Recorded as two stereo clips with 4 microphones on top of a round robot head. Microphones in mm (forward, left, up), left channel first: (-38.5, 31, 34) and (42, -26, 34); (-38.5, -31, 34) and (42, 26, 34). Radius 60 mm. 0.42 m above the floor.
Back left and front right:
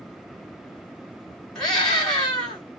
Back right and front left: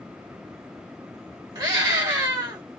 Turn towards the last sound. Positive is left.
turn(degrees=65)